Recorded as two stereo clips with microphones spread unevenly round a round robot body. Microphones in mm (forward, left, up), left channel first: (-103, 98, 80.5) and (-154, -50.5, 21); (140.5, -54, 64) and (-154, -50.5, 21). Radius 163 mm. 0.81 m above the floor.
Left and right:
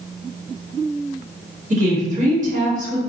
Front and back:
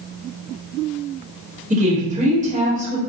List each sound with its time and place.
1.7 s a woman speaking: 120° right, 1.8 m